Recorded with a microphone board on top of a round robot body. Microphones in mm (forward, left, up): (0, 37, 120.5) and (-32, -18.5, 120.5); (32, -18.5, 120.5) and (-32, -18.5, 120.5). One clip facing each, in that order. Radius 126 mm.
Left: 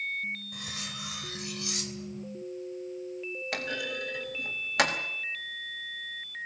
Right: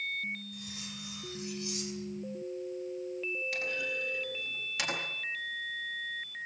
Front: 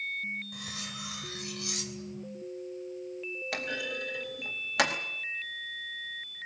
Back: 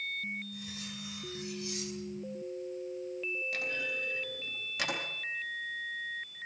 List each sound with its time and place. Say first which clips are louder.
0.5 s cutlery clinking: left 4 dB, front 2 dB; 30° left, 3 m
3.5 s a clunk: left 1 dB, front 1 dB; 25° left, 4.5 m